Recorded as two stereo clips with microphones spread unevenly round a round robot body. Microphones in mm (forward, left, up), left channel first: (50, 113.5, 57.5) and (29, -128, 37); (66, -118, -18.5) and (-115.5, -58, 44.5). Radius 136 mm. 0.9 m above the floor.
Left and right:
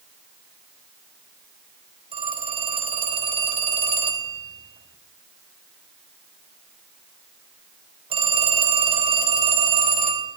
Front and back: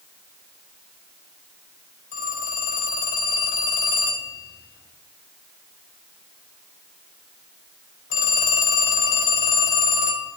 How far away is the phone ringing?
About 3 m.